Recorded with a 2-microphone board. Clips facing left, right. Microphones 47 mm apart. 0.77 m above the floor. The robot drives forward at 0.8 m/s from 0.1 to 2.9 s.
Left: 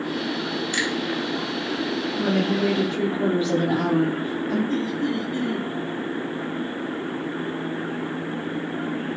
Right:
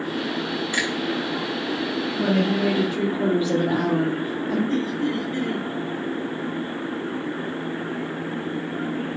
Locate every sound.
0.7 s a finger snap: 20° right (ahead or behind), 4.5 m
2.2 s a woman speaking: 10° right (ahead or behind), 1.1 m; by 4.6 s 5° right (ahead or behind), 1.5 m
4.7 s laughter: 50° right (ahead or behind), 2.5 m